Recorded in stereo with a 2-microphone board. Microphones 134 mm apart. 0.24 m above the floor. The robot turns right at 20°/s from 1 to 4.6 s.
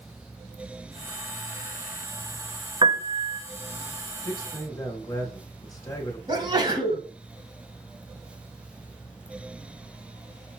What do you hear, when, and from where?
2.8 s a piano: 35° right (ahead or behind), 0.6 m; by 3.4 s 50° right (ahead or behind), 0.6 m
4.2 s a man speaking: 25° left (ahead or behind), 1.1 m
6.3 s a sneeze: 35° right (ahead or behind), 2 m